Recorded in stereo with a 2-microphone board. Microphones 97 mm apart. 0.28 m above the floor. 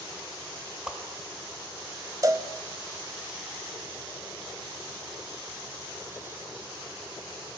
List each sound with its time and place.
0.9 s a whoosh: 10° right (ahead or behind), 0.9 m
2.2 s a cowbell: 40° right (ahead or behind), 0.6 m